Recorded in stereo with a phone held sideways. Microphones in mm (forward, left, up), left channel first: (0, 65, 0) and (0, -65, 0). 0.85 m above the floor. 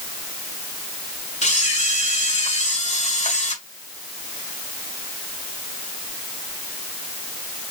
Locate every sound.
1.4 s a camera shutter: 55° left (ahead or behind), 1.5 m